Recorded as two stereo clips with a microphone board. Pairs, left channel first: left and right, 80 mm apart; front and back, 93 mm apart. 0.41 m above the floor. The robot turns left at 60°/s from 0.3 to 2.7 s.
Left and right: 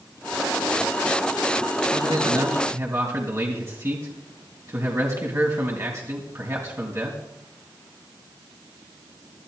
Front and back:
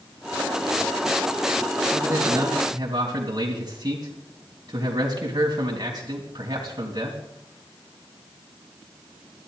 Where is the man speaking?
95° right, 3 m; by 7.2 s 140° right, 3 m.